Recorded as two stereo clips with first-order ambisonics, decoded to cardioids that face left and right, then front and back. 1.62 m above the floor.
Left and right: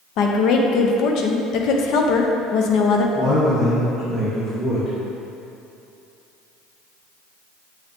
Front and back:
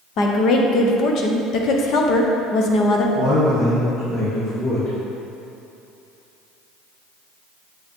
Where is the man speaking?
30° left, 2 m.